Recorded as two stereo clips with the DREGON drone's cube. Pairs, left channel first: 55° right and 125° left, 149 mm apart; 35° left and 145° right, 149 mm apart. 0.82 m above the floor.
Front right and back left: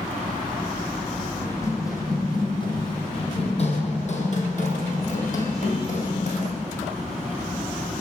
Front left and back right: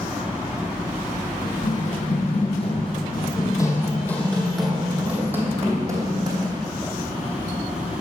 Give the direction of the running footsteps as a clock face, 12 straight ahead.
11 o'clock.